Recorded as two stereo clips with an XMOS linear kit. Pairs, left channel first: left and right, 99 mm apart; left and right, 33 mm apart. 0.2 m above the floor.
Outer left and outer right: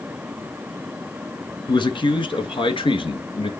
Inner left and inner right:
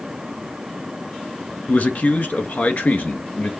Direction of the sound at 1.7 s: 50° left (ahead or behind).